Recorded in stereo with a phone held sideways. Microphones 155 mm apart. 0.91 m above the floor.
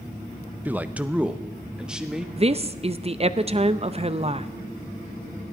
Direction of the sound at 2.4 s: 40° right (ahead or behind).